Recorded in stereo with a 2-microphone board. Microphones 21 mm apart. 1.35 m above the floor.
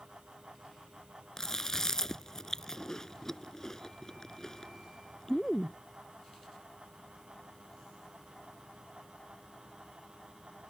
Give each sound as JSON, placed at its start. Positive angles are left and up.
{"t": 1.4, "sound": "chewing", "side_deg": 25}